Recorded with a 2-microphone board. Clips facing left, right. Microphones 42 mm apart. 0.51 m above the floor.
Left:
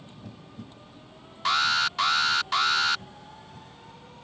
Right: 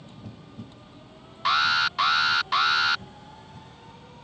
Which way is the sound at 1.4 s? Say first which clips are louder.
Right 2 dB; 10° right (ahead or behind).